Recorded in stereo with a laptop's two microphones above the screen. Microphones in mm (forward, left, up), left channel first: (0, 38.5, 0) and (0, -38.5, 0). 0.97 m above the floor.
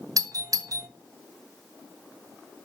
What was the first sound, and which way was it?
A doorbell, 50° right (ahead or behind).